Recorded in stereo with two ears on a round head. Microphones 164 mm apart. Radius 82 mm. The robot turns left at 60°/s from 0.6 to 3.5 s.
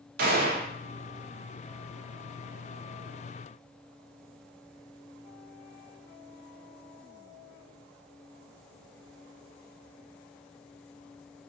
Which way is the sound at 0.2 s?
50° right (ahead or behind).